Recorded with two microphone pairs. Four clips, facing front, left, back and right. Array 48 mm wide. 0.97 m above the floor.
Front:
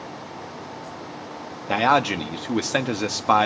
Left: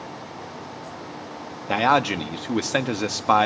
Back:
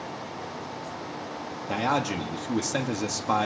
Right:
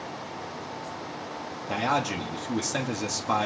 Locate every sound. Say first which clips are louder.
1.7 s a man speaking: left 7 dB, front 7 dB; 45° left, 1.1 m